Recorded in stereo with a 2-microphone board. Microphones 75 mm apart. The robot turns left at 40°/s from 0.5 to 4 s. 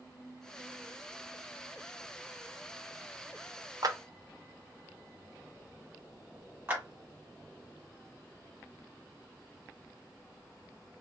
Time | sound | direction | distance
3.8 | a clap | 55° right (ahead or behind) | 0.5 m
6.7 | a clap | 25° right (ahead or behind) | 1.2 m